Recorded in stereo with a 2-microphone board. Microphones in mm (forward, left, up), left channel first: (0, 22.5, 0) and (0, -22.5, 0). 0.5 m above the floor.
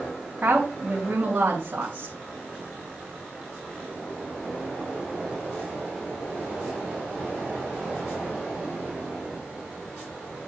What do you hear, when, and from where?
0.4 s a woman speaking: 35° right (ahead or behind), 4 m